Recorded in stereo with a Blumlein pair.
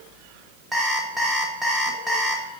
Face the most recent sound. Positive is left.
turn(degrees=-10)